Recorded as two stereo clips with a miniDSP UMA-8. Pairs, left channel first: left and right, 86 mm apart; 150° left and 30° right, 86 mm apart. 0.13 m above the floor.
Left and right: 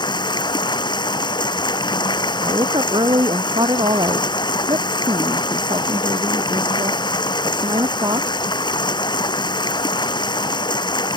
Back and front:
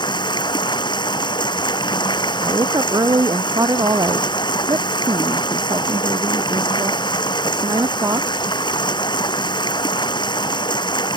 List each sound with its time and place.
0.0 s running water: 120° left
2.4 s a woman speaking: 70° right